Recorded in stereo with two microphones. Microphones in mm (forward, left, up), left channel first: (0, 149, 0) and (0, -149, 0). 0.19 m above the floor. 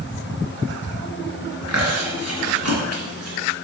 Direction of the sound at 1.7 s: 55° right (ahead or behind).